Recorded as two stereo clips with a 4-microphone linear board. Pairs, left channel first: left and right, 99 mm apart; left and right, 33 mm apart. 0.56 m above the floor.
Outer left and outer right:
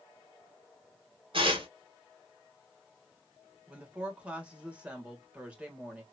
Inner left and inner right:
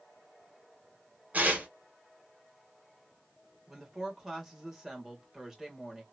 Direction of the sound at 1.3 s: 60° right (ahead or behind).